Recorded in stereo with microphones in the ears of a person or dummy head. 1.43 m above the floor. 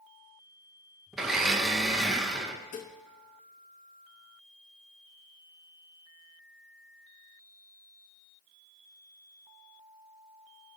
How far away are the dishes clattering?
About 1.0 m.